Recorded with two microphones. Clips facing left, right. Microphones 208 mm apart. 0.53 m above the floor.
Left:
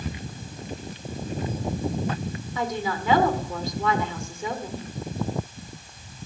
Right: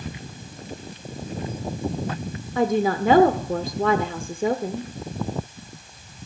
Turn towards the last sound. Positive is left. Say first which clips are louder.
# right 9 dB
turn(degrees=-55)  # may be behind; listen again after turning